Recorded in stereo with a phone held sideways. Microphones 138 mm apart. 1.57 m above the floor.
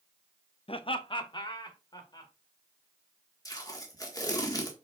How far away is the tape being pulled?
About 1.5 m.